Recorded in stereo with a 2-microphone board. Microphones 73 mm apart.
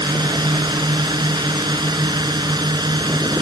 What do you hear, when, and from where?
0.0 s a drone: 75° right (ahead or behind); by 3.4 s 70° right (ahead or behind)